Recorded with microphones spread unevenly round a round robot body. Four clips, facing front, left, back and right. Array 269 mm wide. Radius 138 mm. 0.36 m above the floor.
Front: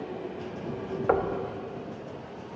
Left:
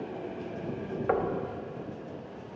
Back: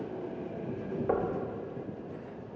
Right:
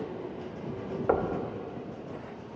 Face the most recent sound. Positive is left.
turn(degrees=-45)